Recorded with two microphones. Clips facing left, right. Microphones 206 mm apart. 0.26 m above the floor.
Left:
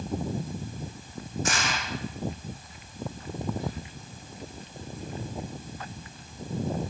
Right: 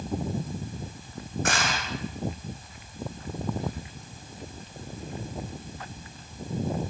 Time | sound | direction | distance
1.4 | crushing | 60° right (ahead or behind) | 8.5 m